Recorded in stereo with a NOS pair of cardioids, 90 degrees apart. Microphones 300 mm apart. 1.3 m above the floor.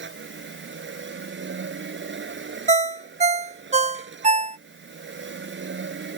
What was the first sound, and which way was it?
A machine running, 40° right.